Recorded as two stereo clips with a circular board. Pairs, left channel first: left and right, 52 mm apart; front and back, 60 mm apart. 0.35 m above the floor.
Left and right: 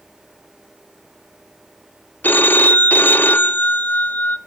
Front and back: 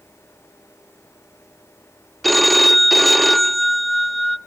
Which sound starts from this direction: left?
A phone ringing, at 2.2 s.